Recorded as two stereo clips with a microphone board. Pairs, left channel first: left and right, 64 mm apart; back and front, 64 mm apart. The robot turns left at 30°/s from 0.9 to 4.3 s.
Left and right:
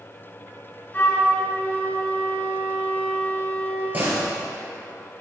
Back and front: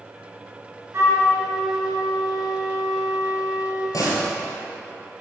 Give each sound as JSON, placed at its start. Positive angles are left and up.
{"t": 0.9, "sound": "a flute", "azimuth_deg": 30, "distance_m": 2.5}
{"t": 3.9, "sound": "a door slam", "azimuth_deg": -155, "distance_m": 2.5}